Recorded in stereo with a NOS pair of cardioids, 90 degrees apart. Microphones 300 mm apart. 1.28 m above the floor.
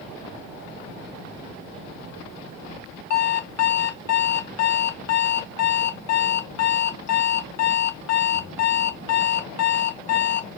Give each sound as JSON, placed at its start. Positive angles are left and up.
{"t": 3.1, "sound": "an alarm clock", "azimuth_deg": 60, "distance_m": 1.1}